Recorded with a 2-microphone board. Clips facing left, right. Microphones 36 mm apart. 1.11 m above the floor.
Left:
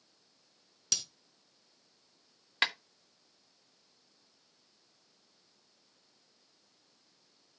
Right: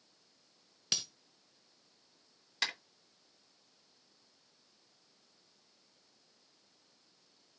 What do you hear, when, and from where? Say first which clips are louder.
0.9 s breaking glass: right 1 dB; 25° right (ahead or behind), 1.2 m
2.6 s a clap: left 6 dB; 40° left (ahead or behind), 1.3 m